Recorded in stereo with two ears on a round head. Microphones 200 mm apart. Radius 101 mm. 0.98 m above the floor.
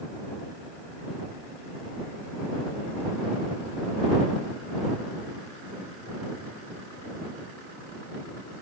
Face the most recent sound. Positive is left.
No sound to turn to.